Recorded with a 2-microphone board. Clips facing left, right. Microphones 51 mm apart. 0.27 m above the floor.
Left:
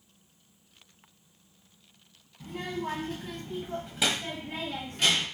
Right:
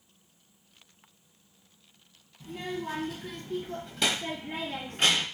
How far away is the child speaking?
About 1.2 m.